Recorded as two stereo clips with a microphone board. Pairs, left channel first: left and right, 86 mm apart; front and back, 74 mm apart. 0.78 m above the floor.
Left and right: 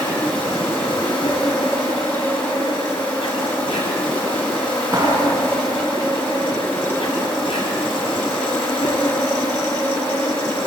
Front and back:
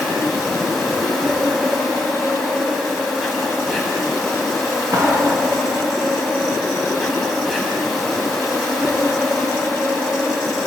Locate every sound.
0.0 s an insect: 90° left, 7.5 m
4.9 s a clap: 140° right, 7 m